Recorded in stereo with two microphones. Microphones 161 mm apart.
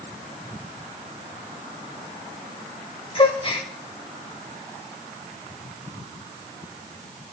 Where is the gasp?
35° left (ahead or behind), 1.3 m.